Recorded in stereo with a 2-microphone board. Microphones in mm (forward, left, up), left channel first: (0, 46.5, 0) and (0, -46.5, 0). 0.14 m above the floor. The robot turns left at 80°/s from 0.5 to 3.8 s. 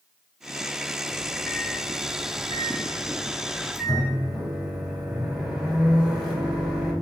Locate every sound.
1.1 s a microwave: 155° right, 2 m; by 6.9 s 10° right, 2 m